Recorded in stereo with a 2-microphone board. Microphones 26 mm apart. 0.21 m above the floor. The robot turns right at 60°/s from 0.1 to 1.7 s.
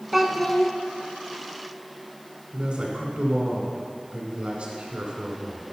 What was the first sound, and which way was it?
A child speaking, 5° right.